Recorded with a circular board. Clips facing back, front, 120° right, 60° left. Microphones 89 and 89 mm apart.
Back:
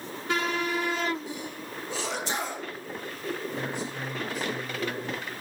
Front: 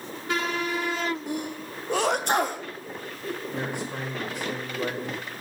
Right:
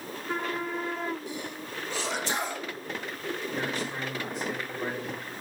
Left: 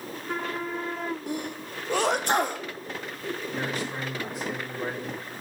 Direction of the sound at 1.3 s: 30° left.